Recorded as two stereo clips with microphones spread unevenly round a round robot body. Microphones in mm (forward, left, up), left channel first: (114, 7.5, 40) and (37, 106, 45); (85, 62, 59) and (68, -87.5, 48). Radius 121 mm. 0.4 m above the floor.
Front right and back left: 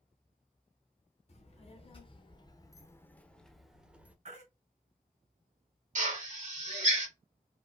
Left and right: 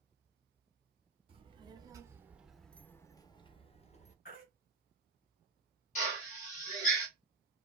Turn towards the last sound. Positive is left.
turn(degrees=125)